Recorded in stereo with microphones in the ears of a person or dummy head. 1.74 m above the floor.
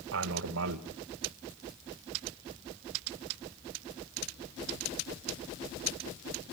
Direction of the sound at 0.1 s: 65° right (ahead or behind).